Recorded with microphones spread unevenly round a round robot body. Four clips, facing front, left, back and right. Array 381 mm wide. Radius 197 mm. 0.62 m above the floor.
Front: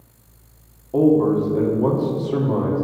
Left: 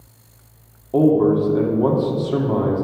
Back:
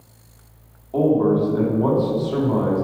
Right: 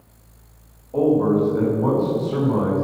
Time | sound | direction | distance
0.9 | a man speaking | 80° left | 2 m